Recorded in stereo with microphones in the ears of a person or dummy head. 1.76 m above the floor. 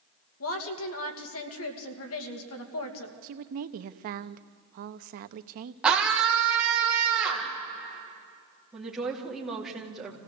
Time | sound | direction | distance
0.4 | a woman speaking | 75° left (ahead or behind) | 2.5 m
3.2 | a woman speaking | 50° right (ahead or behind) | 0.9 m
5.8 | a scream | 10° right (ahead or behind) | 1.8 m
8.7 | a woman speaking | 5° right (ahead or behind) | 4.5 m